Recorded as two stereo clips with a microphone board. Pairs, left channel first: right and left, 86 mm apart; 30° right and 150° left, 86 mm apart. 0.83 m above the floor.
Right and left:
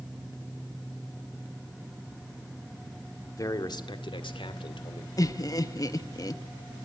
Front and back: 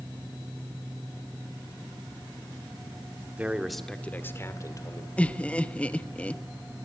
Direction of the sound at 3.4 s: 135° right.